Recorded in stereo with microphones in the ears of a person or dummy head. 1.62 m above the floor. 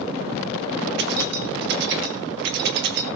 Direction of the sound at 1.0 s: 55° right (ahead or behind).